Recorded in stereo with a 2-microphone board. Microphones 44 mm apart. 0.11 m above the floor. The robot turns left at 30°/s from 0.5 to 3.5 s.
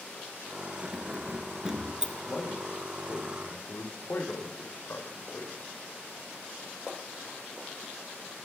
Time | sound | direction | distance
0.8 | keys jangling | 25° right (ahead or behind) | 0.8 m
2.2 | a man speaking | 50° left (ahead or behind) | 5 m